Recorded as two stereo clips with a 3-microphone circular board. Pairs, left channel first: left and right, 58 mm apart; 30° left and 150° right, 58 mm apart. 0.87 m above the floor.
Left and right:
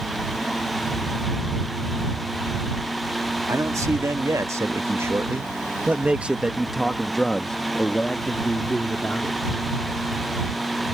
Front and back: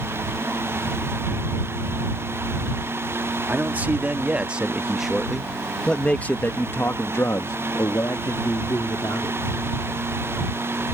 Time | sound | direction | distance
3.5 | a man speaking | 95° right | ?